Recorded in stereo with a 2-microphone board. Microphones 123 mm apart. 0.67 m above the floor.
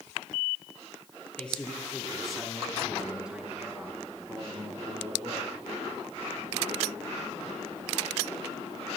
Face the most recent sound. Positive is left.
turn(degrees=-35)  # may be behind; listen again after turning